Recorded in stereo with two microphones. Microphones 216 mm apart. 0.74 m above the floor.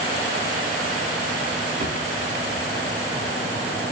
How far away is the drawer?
About 5.5 m.